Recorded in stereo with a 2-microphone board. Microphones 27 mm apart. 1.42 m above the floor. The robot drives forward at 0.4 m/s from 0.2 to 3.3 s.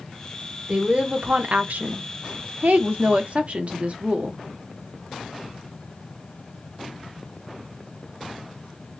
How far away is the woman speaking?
About 0.8 m.